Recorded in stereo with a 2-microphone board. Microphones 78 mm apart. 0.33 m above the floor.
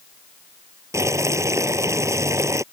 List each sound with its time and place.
0.9 s boiling: 40° right (ahead or behind)